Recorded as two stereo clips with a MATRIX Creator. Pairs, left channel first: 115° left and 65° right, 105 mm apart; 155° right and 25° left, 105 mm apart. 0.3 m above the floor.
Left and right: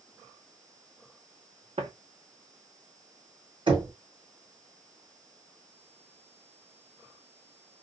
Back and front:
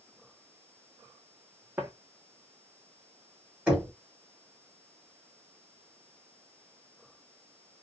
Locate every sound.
1.8 s footsteps: 50° right, 1.2 m
3.7 s knocking: 55° right, 1.8 m